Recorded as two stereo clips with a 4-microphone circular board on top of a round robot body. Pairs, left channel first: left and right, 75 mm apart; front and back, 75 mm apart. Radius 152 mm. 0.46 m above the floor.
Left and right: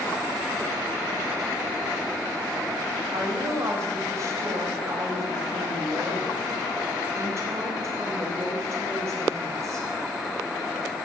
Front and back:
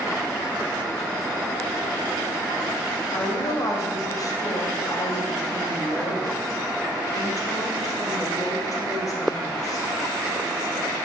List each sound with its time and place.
3.1 s a woman speaking: 40° right, 4 m